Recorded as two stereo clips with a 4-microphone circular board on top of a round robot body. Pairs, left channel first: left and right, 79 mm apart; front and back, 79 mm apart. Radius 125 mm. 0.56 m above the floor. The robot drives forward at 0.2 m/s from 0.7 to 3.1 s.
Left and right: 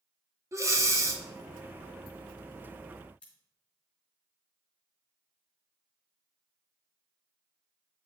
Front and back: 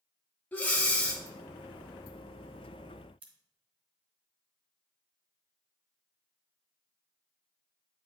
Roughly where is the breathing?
Ahead right.